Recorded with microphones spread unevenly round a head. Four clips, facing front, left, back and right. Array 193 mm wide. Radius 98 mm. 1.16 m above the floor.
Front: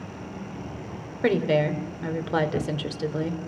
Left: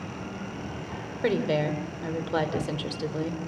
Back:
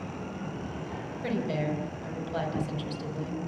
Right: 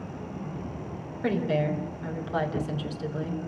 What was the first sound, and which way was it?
A woman speaking, 20° left.